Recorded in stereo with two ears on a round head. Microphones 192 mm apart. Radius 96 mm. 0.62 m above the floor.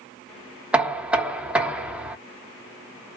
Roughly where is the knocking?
Centre.